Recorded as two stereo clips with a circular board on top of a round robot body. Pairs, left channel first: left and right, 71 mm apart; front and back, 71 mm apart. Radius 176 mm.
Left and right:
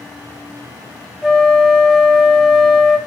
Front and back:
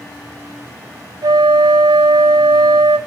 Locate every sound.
1.2 s a flute: 175° right, 0.7 m